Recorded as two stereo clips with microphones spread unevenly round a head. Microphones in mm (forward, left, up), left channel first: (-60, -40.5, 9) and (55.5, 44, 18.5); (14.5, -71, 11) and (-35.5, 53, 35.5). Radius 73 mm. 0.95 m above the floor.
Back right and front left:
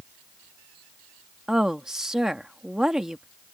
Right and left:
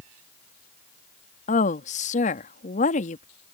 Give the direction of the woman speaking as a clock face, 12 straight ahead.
2 o'clock.